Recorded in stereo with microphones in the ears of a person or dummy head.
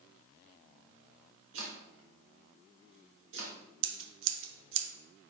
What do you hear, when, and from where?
1.5 s chopping: 75° right (ahead or behind), 1.6 m
3.8 s scissors: 75° right (ahead or behind), 1.0 m